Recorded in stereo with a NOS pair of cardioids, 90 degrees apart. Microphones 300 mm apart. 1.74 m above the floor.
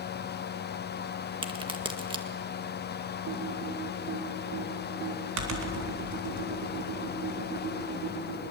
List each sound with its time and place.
0.0 s a fan: 35° left, 1.3 m
1.4 s a crack: 15° right, 1.9 m
3.3 s typing on a keyboard: 70° right, 4 m